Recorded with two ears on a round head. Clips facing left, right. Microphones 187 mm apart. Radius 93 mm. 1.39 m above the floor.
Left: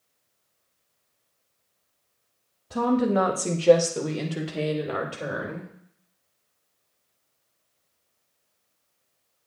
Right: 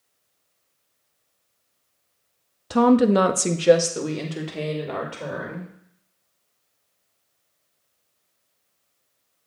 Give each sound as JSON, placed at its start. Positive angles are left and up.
{"t": 2.7, "sound": "a woman speaking", "side_deg": -85, "distance_m": 0.6}